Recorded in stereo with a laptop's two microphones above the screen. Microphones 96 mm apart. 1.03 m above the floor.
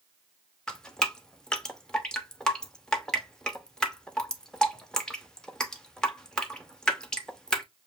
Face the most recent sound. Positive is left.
turn(degrees=5)  # may be behind; listen again after turning